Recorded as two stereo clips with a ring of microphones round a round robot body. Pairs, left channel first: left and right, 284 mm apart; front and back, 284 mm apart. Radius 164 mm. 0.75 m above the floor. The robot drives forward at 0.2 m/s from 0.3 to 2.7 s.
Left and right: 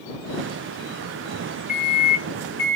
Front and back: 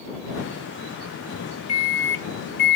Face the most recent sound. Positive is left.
turn(degrees=45)